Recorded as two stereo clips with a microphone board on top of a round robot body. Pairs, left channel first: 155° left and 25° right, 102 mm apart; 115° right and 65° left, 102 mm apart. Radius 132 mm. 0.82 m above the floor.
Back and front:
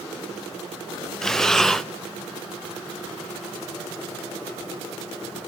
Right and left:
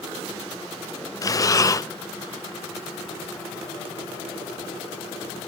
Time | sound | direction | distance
1.2 | breathing | 120° right | 0.7 m